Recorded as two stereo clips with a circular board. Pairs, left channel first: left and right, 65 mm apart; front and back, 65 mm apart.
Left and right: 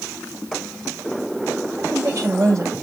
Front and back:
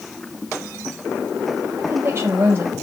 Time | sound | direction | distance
1.7 | a woman speaking | 130° right | 6 m